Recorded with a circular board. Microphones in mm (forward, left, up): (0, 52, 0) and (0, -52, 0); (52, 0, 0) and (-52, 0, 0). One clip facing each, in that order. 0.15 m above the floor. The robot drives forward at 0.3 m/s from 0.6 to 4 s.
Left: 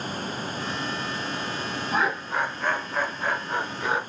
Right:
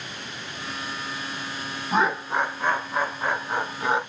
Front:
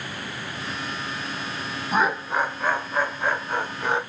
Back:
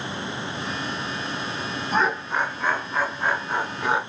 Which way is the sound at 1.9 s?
70° right.